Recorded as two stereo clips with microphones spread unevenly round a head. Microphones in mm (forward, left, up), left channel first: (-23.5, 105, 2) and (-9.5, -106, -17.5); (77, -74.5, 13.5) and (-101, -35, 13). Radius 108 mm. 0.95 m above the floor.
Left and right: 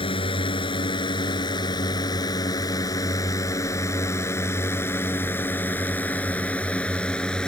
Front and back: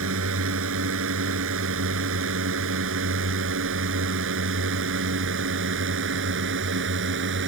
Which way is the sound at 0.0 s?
160° left.